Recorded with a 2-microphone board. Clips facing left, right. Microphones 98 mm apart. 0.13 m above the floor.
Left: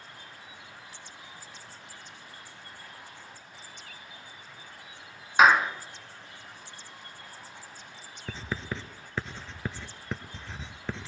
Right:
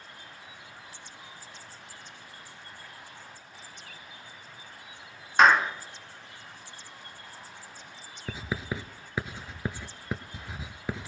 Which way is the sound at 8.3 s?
10° right (ahead or behind).